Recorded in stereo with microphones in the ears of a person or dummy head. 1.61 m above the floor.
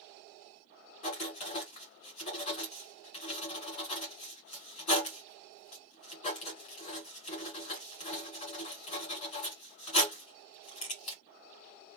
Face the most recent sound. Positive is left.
turn(degrees=35)  # may be behind; listen again after turning